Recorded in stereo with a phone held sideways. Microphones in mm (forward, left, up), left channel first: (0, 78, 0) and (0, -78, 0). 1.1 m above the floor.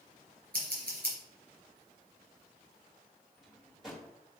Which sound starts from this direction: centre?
A drawer, at 3.4 s.